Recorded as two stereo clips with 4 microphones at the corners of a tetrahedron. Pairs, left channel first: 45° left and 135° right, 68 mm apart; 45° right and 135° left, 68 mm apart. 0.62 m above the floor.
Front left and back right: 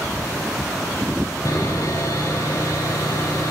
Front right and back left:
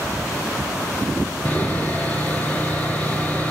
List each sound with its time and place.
1.4 s sawing: 20° left, 3 m